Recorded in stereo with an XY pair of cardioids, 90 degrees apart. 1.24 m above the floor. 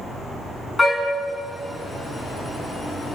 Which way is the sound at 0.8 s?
25° left.